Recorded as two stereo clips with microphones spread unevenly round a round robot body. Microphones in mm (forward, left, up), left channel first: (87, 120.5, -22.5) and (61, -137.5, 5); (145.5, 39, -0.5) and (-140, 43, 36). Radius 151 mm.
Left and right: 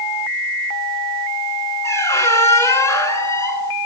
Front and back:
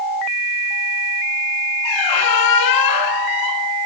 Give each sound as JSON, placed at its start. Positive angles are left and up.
{"t": 1.8, "sound": "a squeak", "azimuth_deg": 5, "distance_m": 1.5}